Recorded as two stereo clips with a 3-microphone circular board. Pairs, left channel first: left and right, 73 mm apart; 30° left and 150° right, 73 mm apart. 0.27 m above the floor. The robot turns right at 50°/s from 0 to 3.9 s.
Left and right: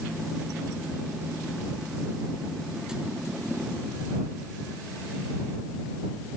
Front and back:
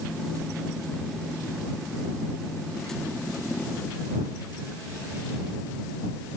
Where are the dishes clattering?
I don't hear dishes clattering.